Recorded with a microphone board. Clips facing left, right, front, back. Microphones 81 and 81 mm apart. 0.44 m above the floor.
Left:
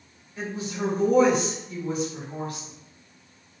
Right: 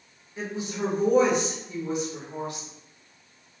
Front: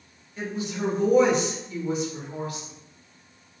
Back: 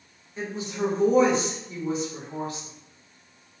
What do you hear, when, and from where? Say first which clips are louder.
0.4 s a woman speaking: even, back 1 dB; 145° right, 1.5 m